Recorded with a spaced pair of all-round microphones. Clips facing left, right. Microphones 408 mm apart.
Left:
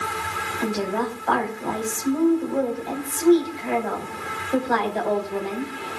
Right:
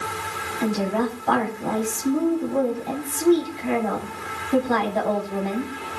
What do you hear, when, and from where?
0.6 s a woman speaking: 45° right (ahead or behind), 4.5 m